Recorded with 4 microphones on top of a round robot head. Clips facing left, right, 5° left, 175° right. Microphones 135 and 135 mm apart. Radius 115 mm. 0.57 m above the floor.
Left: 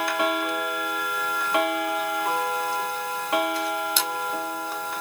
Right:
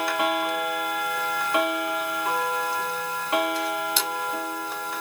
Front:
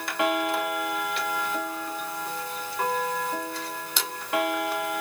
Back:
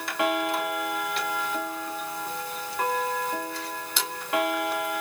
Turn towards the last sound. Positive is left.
No sound to turn to.